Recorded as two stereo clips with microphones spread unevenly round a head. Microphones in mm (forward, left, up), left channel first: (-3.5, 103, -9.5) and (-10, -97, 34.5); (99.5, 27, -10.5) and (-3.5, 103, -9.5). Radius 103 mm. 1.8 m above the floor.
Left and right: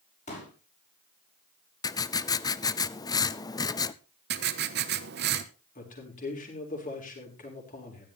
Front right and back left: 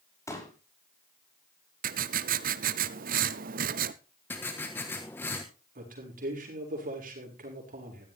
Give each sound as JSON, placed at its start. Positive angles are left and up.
{"t": 0.3, "sound": "a pop", "azimuth_deg": 30, "distance_m": 6.0}
{"t": 1.8, "sound": "writing", "azimuth_deg": 165, "distance_m": 0.6}
{"t": 4.3, "sound": "writing", "azimuth_deg": -115, "distance_m": 1.3}
{"t": 5.8, "sound": "a man speaking", "azimuth_deg": 140, "distance_m": 6.0}